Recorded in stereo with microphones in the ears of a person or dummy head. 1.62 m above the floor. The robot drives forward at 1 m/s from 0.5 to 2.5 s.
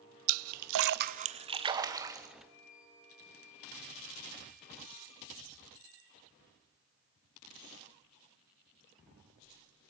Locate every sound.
0.3 s a splash: 80° right, 0.5 m; by 2.3 s 15° right (ahead or behind), 1.8 m
2.4 s a flute: 65° left (ahead or behind), 7 m